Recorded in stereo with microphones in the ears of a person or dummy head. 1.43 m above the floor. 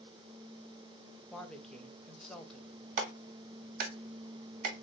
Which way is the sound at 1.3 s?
5° left (ahead or behind).